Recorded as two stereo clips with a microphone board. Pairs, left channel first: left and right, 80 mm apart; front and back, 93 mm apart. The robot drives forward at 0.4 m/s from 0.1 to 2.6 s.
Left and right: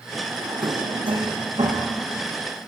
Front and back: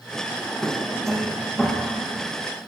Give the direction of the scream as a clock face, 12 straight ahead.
I don't hear a scream.